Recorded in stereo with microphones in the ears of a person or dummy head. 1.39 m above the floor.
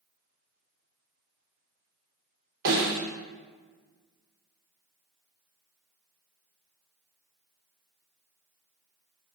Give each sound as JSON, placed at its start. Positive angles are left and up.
{"t": 2.6, "sound": "a snare drum", "side_deg": -55, "distance_m": 0.9}